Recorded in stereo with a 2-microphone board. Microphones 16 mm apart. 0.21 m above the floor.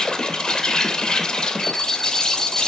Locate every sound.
0.0 s an insect: 50° left (ahead or behind), 2.5 m
1.6 s an alarm clock: 75° left (ahead or behind), 3 m